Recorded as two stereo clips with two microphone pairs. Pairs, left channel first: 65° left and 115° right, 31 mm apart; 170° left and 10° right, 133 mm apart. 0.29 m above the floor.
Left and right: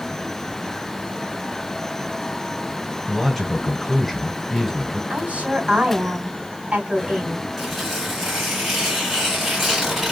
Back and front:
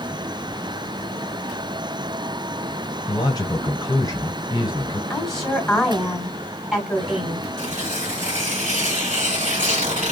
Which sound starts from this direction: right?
A woman speaking, at 5.1 s.